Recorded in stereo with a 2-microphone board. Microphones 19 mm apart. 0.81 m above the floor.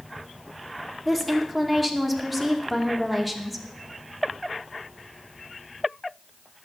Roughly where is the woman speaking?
Centre.